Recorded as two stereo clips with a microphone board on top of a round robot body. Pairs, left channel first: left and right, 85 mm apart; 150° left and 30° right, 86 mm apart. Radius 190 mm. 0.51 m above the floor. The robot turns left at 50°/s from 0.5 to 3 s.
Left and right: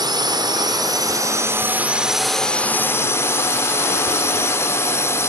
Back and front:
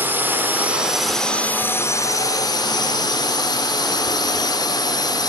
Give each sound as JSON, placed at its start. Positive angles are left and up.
{"t": 0.0, "sound": "a drone", "azimuth_deg": -90}